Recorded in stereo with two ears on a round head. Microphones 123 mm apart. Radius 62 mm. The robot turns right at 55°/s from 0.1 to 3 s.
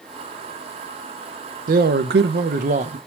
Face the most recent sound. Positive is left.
turn(degrees=-40)